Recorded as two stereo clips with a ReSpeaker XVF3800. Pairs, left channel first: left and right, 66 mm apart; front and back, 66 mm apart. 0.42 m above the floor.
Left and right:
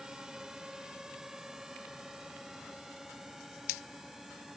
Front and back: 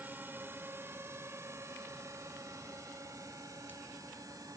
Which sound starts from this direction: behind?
A drone, at 0.0 s.